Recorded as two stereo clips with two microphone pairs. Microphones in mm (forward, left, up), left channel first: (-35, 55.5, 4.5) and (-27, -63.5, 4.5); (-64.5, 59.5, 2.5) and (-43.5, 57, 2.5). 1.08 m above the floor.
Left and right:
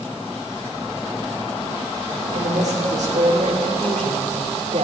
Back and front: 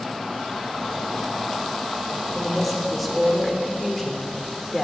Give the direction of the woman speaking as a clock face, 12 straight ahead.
3 o'clock.